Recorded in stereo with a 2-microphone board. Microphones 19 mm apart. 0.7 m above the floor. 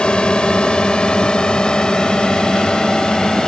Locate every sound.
0.0 s a drone: 50° left (ahead or behind); by 3.5 s 35° left (ahead or behind)